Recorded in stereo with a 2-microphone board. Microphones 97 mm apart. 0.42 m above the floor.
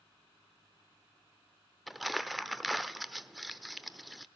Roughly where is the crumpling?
Centre.